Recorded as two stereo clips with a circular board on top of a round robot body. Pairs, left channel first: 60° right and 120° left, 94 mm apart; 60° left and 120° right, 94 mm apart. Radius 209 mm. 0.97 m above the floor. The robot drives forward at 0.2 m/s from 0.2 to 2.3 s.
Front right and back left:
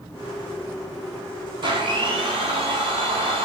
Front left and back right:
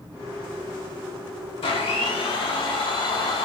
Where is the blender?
80° left, 0.6 m; by 3.5 s 95° left, 0.6 m.